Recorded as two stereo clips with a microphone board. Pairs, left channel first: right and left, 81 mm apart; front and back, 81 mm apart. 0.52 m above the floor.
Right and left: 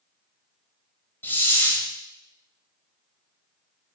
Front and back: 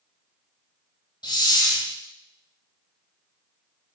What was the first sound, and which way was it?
A hiss, 25° right.